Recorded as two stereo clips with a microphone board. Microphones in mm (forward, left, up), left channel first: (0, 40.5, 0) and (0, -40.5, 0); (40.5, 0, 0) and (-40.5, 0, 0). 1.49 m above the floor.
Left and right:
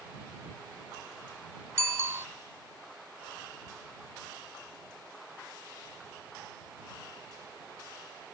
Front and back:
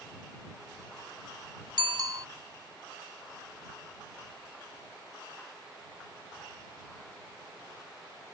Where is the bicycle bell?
145° right.